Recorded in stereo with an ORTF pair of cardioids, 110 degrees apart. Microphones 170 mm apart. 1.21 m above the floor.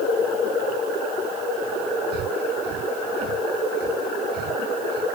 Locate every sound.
2.1 s breathing: 65° right